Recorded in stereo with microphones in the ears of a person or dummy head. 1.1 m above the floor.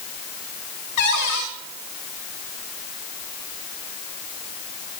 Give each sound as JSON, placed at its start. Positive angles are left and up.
{"t": 1.0, "sound": "a cupboard door", "side_deg": 60, "distance_m": 1.8}